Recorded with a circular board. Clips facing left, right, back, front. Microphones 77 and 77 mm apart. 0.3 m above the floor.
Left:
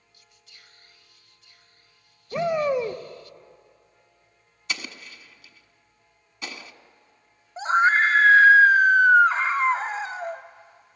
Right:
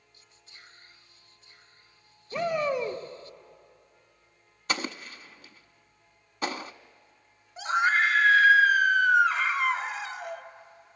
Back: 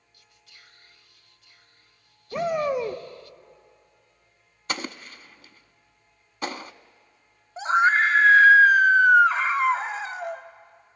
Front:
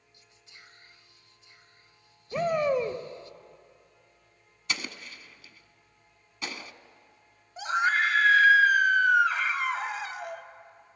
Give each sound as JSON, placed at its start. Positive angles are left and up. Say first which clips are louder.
{"t": 0.1, "sound": "whispering", "louder": "right 2 dB, front 1 dB", "azimuth_deg": -55, "distance_m": 1.2}
{"t": 2.3, "sound": "a shout", "louder": "left 4 dB, back 1 dB", "azimuth_deg": 120, "distance_m": 1.0}
{"t": 4.7, "sound": "an explosion", "louder": "right 3 dB, back 4 dB", "azimuth_deg": -135, "distance_m": 0.6}
{"t": 7.6, "sound": "a scream", "louder": "left 5 dB, back 6 dB", "azimuth_deg": 130, "distance_m": 1.7}